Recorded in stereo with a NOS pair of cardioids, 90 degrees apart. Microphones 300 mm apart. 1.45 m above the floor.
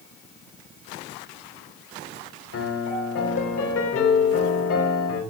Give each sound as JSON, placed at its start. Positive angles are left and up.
{"t": 2.5, "sound": "a piano", "azimuth_deg": 50, "distance_m": 4.0}